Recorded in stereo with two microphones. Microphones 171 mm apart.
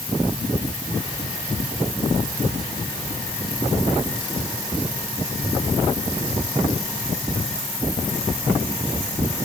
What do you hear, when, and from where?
Only background noise.